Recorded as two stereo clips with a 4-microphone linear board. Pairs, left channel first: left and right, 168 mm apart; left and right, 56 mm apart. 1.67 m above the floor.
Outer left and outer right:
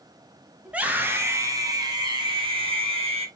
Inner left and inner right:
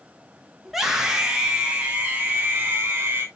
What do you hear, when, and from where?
0.7 s a scream: 5° right (ahead or behind), 2 m; by 3.3 s 40° right (ahead or behind), 3 m